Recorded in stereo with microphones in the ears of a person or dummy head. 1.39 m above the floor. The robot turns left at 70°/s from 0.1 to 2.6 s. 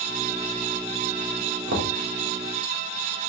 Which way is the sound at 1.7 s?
65° right (ahead or behind).